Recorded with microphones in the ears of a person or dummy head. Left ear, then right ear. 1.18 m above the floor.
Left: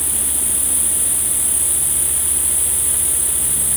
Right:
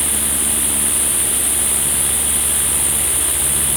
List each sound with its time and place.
0.0 s an insect: 15° left (ahead or behind), 0.9 m